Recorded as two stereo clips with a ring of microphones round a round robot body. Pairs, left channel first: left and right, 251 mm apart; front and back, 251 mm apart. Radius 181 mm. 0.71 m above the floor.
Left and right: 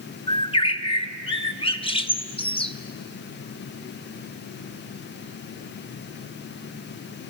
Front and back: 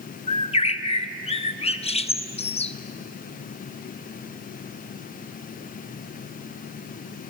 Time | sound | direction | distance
0.3 | a bird | 40° left | 0.8 m